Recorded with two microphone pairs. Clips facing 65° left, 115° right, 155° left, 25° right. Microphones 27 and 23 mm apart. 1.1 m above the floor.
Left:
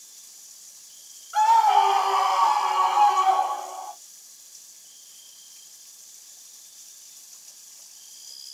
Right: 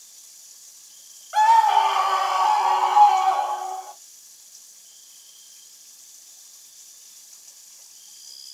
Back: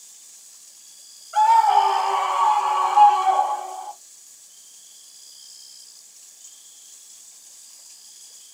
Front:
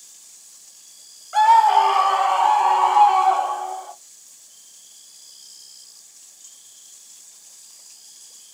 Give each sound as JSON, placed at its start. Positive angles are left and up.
{"t": 1.3, "sound": "a scream", "azimuth_deg": -75, "distance_m": 2.0}